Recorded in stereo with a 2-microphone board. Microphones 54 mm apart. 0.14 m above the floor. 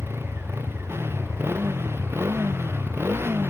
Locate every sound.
0.0 s a motorcycle: 50° right (ahead or behind)